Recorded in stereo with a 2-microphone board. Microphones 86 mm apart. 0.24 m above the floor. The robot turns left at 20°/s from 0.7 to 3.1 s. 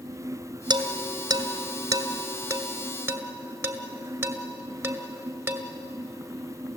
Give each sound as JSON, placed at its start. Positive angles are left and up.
{"t": 0.7, "sound": "dishes clattering", "side_deg": -65, "distance_m": 1.8}